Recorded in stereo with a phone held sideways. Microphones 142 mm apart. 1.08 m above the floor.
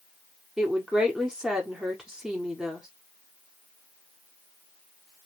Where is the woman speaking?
5° right (ahead or behind), 0.8 m.